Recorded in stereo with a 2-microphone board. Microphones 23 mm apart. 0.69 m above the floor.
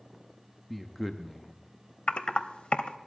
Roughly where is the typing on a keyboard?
Left.